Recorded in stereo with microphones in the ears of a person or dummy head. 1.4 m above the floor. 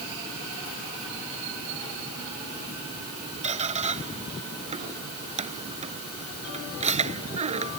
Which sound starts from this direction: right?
A squeak, at 3.4 s.